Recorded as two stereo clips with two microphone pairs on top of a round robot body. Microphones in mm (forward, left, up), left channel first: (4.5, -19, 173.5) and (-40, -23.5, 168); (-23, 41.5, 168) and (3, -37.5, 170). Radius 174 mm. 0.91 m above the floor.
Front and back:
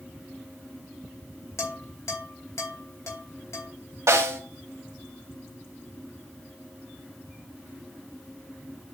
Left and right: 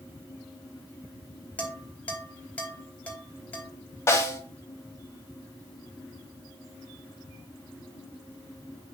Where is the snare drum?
170° left, 1.3 m.